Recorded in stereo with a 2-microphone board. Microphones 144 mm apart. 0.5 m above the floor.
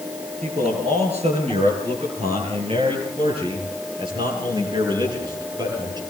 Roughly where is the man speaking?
Right.